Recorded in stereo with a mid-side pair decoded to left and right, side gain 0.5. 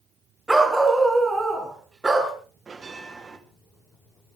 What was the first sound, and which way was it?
A dog barking, 15° right.